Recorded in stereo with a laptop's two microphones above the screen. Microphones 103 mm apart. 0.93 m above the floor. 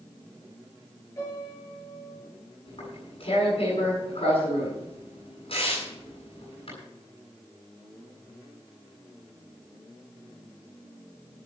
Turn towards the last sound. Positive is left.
turn(degrees=60)  # may be behind; listen again after turning